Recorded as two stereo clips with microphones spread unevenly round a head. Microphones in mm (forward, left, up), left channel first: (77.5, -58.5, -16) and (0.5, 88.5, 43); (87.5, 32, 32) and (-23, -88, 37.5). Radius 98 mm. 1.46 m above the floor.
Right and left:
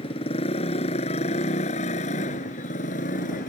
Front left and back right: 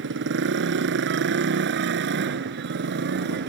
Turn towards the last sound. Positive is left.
turn(degrees=-115)